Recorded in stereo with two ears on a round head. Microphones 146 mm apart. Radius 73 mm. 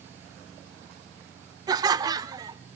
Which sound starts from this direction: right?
Laughter, at 1.7 s.